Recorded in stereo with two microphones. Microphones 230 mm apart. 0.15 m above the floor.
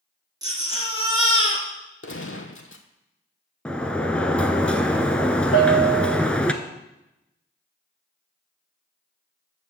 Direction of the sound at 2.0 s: 65° left (ahead or behind).